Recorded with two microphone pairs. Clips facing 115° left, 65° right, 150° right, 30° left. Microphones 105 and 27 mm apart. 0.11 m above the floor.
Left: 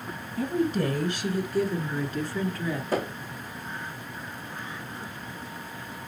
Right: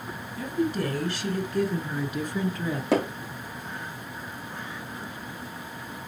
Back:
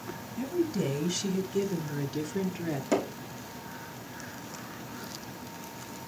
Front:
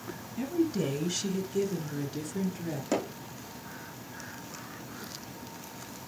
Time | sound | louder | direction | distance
0.4 | a woman speaking | left 1 dB, front 1 dB | 95° left | 1.3 m
2.9 | hammering | right 5 dB, back 2 dB | 60° right | 3.5 m